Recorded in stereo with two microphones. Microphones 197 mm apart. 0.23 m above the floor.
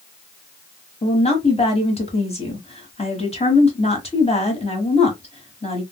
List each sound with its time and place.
1.0 s a woman speaking: 30° left (ahead or behind), 1.2 m